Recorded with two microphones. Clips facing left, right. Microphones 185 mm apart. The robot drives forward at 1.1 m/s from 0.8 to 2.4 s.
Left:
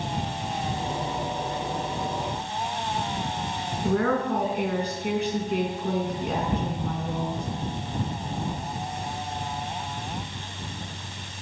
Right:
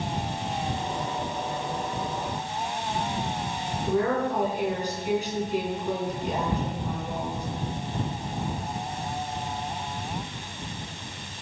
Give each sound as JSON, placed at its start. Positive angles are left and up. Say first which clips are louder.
{"t": 3.8, "sound": "a woman speaking", "louder": "left 1 dB", "side_deg": 65, "distance_m": 6.0}